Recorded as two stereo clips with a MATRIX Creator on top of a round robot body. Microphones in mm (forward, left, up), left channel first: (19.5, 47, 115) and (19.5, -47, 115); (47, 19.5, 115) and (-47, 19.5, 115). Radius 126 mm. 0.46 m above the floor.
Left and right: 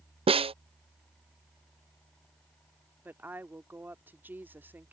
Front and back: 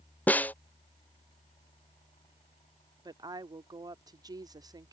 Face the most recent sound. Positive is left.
turn(degrees=-155)